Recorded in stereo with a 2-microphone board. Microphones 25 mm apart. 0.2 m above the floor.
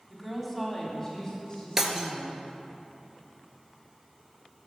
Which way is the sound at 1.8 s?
15° right (ahead or behind).